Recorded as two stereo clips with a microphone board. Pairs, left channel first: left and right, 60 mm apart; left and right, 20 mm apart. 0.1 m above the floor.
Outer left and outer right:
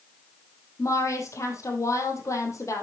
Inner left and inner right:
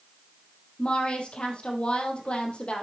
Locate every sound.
0.8 s a woman speaking: 55° left (ahead or behind), 3 m